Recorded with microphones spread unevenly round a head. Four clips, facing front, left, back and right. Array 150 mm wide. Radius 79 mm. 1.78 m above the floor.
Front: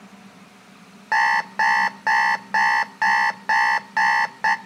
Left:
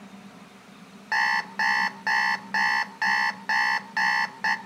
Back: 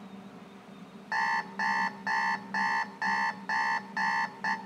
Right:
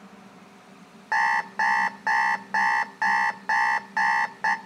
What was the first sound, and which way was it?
An alarm clock, 20° right.